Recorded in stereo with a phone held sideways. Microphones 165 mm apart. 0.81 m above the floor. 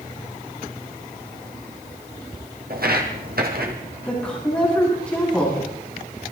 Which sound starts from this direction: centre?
A woman speaking, at 4.0 s.